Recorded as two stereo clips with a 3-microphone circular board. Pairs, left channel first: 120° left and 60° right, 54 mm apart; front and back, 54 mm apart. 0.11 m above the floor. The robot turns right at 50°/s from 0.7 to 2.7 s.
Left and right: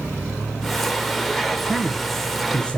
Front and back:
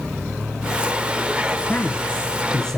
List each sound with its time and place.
1.7 s a man speaking: 20° left, 1.3 m; by 2.8 s 70° left, 1.3 m